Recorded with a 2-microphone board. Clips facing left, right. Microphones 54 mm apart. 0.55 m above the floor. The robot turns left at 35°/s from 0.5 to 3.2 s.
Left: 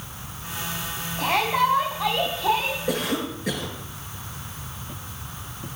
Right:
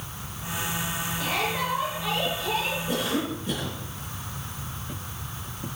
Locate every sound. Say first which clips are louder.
1.2 s a shout: left 8 dB; 120° left, 4.5 m; by 2.8 s 65° left, 4.5 m
2.9 s a cough: left 2 dB; 85° left, 10 m; by 3.8 s 75° left (ahead or behind), 10 m